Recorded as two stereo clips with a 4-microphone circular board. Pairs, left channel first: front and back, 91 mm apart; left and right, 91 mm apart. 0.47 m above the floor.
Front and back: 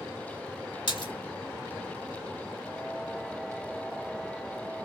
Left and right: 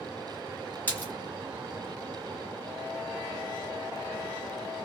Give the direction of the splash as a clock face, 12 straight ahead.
11 o'clock.